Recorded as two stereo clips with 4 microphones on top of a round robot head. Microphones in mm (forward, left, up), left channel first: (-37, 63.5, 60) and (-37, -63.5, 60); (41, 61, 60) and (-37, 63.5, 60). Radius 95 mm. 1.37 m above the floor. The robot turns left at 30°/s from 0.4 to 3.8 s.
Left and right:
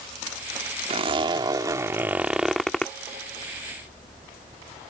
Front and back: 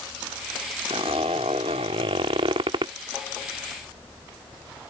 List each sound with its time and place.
0.9 s a zipper: 130° right; by 2.9 s 170° left